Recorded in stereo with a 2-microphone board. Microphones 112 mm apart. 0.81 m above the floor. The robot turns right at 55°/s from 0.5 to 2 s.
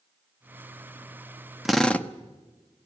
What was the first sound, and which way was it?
A drill, 5° right (ahead or behind).